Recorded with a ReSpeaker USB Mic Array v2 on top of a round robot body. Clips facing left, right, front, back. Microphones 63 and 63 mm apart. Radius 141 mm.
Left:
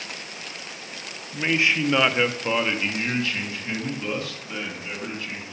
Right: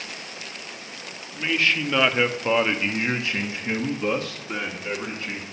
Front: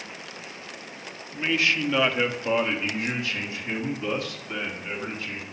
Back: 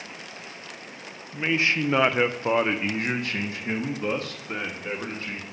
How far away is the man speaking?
About 0.9 m.